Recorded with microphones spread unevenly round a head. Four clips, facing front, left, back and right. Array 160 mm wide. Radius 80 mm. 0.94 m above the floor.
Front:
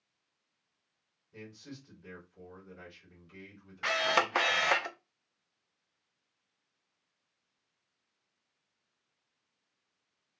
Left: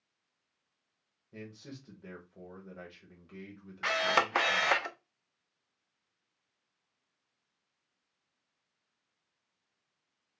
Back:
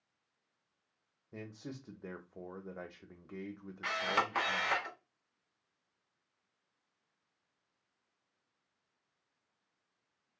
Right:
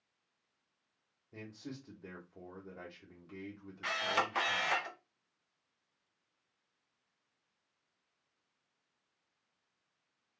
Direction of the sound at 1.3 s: Straight behind.